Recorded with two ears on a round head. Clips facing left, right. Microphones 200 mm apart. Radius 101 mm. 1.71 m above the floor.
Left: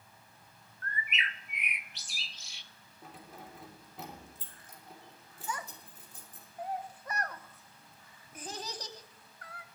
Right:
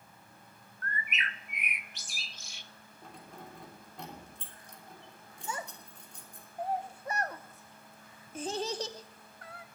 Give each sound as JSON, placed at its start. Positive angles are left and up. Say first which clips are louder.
{"t": 0.8, "sound": "a bird", "louder": "right 1 dB", "side_deg": -40, "distance_m": 0.6}
{"t": 3.0, "sound": "keys jangling", "louder": "right 1 dB", "side_deg": 5, "distance_m": 3.0}
{"t": 5.5, "sound": "a child speaking", "louder": "right 1 dB", "side_deg": -25, "distance_m": 0.9}